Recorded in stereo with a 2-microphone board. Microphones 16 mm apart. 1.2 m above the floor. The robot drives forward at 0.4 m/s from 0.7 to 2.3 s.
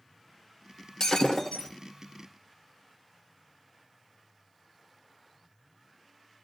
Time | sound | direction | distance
1.0 | breaking glass | 50° left (ahead or behind) | 1.7 m